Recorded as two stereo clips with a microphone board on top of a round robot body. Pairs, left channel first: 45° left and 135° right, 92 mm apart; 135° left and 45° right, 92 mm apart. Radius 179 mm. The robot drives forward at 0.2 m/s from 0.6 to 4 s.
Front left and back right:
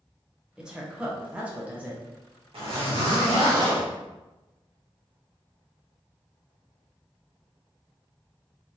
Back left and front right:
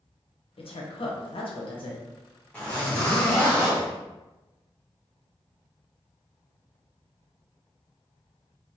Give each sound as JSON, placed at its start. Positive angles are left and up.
{"t": 0.6, "sound": "a woman speaking", "azimuth_deg": 145, "distance_m": 0.9}
{"t": 2.5, "sound": "a zipper", "azimuth_deg": -150, "distance_m": 1.4}